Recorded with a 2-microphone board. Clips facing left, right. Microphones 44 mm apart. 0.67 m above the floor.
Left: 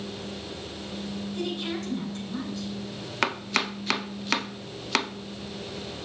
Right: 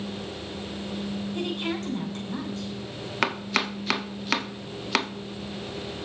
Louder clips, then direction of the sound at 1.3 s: Right 1 dB; 45° right (ahead or behind).